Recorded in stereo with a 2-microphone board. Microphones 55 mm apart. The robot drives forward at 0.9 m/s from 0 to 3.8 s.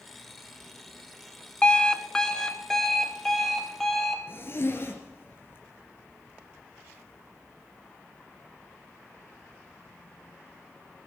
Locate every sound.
1.6 s an alarm clock: 15° left (ahead or behind), 0.6 m; by 4.2 s 5° left (ahead or behind), 2 m
4.3 s a zipper: 45° left (ahead or behind), 3 m